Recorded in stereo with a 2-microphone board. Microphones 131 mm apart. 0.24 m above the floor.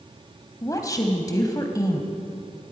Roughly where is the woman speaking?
Left.